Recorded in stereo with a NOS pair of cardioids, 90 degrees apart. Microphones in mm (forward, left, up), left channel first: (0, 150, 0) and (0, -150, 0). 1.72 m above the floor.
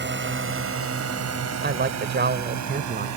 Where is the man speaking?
35° right.